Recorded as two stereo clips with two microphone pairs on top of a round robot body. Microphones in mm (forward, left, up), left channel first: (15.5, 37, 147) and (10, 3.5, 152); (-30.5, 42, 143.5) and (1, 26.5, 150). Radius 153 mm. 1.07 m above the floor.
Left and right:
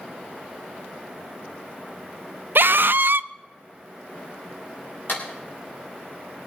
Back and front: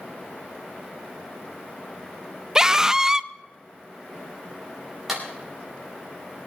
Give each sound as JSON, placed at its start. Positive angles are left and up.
{"t": 2.5, "sound": "a scream", "azimuth_deg": -105, "distance_m": 0.6}
{"t": 5.1, "sound": "a clap", "azimuth_deg": 55, "distance_m": 4.5}